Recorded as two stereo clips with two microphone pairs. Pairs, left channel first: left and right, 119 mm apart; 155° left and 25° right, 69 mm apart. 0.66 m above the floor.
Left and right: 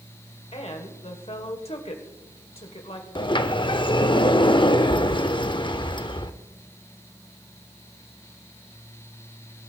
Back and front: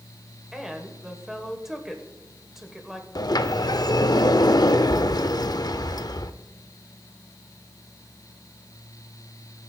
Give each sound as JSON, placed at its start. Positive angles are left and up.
{"t": 0.5, "sound": "a woman speaking", "azimuth_deg": 60, "distance_m": 2.0}
{"t": 3.1, "sound": "a sliding door", "azimuth_deg": 140, "distance_m": 0.6}